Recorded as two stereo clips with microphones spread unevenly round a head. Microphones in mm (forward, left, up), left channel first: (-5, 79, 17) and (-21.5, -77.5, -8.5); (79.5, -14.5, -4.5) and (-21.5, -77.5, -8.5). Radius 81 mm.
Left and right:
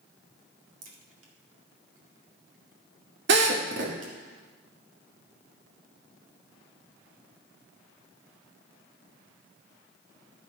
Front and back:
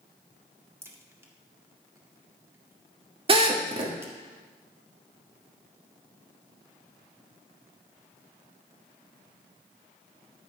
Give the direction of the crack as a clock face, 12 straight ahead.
3 o'clock.